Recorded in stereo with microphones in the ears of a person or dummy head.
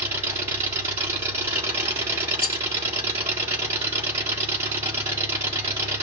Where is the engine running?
10° right (ahead or behind), 1.8 m.